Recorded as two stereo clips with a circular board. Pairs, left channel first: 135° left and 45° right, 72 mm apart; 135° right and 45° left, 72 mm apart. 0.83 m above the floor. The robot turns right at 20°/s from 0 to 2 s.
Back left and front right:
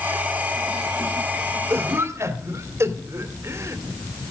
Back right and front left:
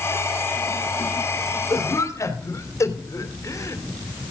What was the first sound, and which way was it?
A cough, 100° right.